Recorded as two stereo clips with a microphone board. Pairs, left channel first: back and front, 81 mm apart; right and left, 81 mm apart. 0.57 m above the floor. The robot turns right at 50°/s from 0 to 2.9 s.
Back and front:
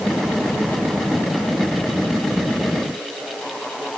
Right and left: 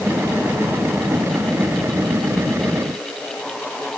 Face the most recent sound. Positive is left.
No sound to turn to.